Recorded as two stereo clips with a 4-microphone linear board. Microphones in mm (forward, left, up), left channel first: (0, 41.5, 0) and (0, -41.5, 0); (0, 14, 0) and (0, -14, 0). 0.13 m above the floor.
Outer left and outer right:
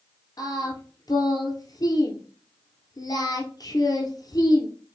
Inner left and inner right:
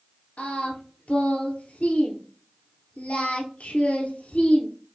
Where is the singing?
55° left (ahead or behind), 1.3 m.